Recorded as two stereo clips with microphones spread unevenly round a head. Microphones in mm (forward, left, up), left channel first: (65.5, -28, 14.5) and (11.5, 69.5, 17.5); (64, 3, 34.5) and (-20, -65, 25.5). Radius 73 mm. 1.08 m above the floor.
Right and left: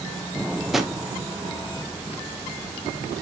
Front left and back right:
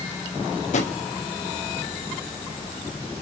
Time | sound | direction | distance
0.7 | a drawer | 30° left | 1.2 m